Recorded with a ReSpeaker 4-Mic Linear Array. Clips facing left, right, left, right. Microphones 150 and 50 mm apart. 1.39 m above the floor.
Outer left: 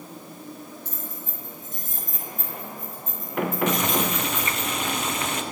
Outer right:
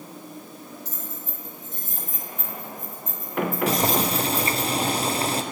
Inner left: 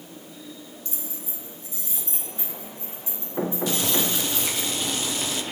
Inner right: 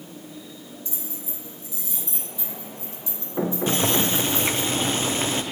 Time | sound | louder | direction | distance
0.8 | keys jangling | even, inner right 1 dB | 55° left (ahead or behind) | 3 m
3.7 | boiling | outer right 2 dB, inner right 3 dB | 35° right (ahead or behind) | 0.6 m